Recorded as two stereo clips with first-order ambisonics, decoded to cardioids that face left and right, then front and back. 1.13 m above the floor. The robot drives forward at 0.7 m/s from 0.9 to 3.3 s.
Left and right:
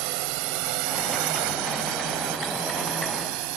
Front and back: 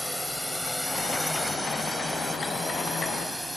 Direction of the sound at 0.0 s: 90° right.